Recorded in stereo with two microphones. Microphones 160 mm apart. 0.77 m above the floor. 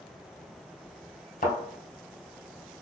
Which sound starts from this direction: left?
A thud, at 1.4 s.